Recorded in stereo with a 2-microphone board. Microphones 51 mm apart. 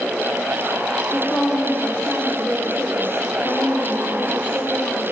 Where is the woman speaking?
50° left (ahead or behind), 5 m.